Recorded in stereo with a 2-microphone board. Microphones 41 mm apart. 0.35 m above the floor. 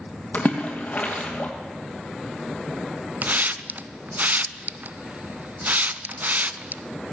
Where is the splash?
40° left (ahead or behind), 2.5 m.